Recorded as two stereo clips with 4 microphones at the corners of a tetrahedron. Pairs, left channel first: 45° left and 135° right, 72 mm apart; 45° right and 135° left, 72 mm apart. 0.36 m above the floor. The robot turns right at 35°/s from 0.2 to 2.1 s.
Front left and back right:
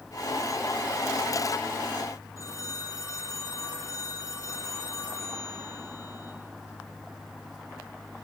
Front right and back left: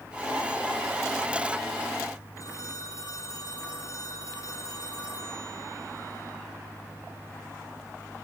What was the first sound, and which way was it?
A phone ringing, straight ahead.